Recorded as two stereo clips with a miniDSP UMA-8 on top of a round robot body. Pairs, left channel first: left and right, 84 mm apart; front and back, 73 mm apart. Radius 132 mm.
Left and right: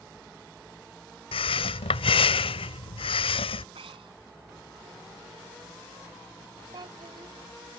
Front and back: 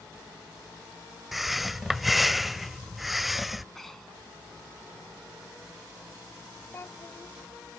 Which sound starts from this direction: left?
Breathing, at 1.3 s.